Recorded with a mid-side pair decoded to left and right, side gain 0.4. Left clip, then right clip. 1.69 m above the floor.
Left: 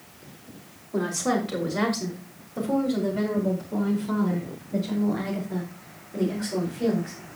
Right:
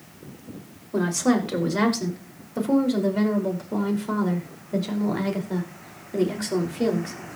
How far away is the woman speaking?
About 5.5 m.